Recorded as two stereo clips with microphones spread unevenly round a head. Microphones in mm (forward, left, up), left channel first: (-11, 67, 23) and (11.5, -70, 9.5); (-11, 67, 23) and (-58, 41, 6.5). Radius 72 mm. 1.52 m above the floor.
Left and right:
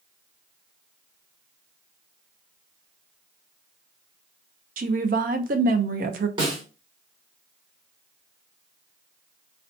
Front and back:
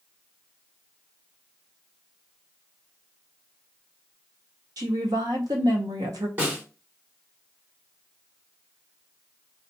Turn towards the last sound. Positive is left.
turn(degrees=-80)